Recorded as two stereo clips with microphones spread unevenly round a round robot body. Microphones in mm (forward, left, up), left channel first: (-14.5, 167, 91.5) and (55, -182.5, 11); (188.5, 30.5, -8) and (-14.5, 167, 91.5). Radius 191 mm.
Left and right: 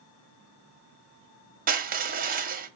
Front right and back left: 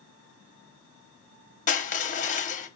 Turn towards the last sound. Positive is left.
turn(degrees=-35)